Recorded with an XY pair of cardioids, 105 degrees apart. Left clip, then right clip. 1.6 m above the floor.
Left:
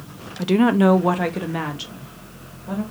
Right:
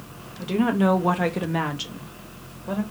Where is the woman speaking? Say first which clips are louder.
Left 5 dB; 55° left, 0.5 m; by 2.8 s 30° right, 1.5 m.